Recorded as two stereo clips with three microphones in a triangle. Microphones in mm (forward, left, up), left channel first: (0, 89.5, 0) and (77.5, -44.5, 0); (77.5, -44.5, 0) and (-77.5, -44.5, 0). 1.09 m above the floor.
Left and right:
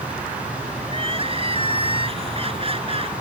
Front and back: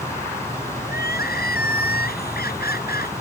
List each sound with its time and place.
0.9 s crying: 5° right